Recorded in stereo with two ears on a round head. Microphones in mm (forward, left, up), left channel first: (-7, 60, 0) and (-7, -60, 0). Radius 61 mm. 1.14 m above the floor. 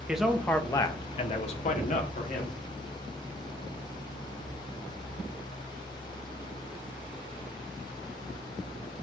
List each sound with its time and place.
0.1 s a man speaking: 5° right (ahead or behind), 0.7 m; by 2.6 s 60° left (ahead or behind), 1.2 m